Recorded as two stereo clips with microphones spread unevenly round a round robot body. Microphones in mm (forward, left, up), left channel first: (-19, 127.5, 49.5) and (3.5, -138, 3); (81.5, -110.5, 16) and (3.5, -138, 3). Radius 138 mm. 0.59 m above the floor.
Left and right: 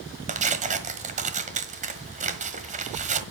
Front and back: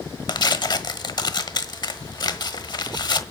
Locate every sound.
0.3 s tearing paper: 20° right, 1.4 m